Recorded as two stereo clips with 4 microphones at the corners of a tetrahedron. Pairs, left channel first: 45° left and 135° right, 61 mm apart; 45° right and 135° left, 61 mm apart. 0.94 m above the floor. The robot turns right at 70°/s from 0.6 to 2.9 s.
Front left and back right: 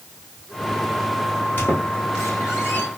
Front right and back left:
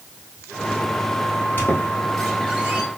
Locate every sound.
1.6 s a squeak: 5° right, 1.4 m; by 2.9 s 85° left, 1.4 m